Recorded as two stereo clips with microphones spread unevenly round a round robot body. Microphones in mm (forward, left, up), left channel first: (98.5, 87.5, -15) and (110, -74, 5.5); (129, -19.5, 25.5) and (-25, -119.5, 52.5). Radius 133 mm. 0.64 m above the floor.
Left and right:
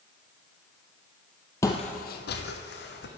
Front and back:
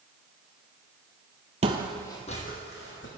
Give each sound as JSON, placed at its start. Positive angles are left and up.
{"t": 1.6, "sound": "footsteps", "azimuth_deg": 170, "distance_m": 0.8}